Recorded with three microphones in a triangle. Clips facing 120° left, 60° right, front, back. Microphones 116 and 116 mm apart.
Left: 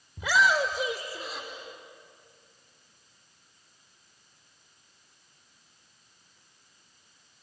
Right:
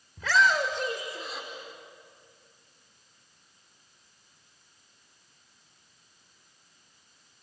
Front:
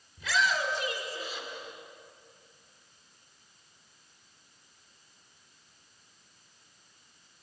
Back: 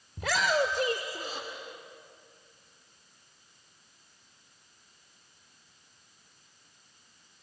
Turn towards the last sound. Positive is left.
turn(degrees=-145)